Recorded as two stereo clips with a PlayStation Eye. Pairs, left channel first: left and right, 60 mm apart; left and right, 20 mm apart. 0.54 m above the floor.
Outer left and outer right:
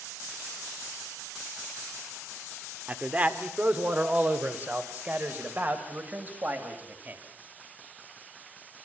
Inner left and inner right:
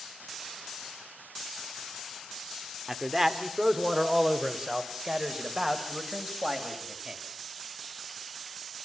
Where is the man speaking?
25° right (ahead or behind), 1.6 m; by 7.2 s 30° right (ahead or behind), 3.5 m.